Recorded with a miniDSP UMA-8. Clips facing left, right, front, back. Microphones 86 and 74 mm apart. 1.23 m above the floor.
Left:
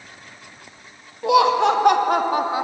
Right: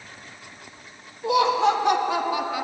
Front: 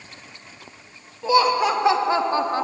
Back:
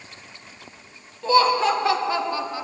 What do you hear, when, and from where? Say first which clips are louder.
1.2 s laughter: left 4 dB, even; 80° left, 2.5 m; by 2.6 s 25° left, 1.1 m